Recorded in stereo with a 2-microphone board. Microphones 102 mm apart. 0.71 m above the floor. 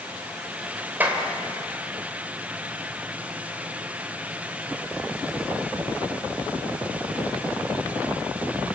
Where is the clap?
15° right (ahead or behind), 2.5 m.